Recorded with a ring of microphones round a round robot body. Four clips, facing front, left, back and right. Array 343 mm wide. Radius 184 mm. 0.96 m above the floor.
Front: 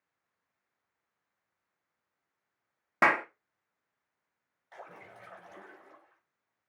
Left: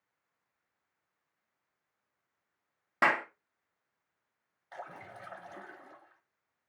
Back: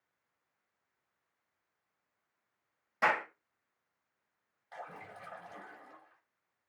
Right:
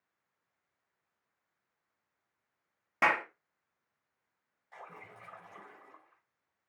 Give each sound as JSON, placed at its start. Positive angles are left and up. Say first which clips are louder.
{"t": 3.0, "sound": "a clap", "louder": "left 1 dB, front 4 dB", "azimuth_deg": 10, "distance_m": 1.6}
{"t": 4.7, "sound": "a splash", "louder": "left 5 dB, back 2 dB", "azimuth_deg": 95, "distance_m": 7.5}